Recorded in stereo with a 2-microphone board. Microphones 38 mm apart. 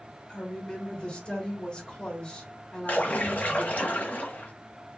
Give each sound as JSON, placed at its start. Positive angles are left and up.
{"t": 0.3, "sound": "a woman speaking", "side_deg": 30, "distance_m": 1.4}
{"t": 2.9, "sound": "a splash", "side_deg": 45, "distance_m": 1.2}